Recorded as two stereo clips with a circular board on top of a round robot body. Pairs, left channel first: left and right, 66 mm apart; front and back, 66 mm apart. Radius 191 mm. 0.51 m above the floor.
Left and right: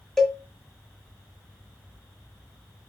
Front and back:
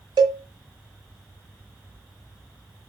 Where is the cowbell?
175° left, 0.5 m.